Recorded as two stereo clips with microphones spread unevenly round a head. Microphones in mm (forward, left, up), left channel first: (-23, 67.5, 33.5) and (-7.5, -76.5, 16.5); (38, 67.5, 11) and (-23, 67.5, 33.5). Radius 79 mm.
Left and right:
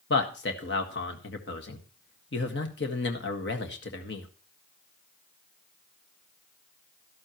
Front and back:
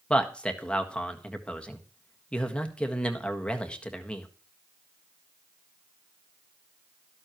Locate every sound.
0.1 s a man speaking: 80° left, 1.7 m